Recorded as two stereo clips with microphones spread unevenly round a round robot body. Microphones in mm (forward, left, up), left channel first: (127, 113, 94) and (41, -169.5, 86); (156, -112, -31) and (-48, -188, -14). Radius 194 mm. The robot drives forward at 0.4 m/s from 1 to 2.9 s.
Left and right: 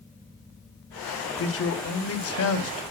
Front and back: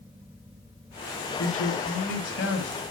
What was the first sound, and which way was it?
A man speaking, 35° left.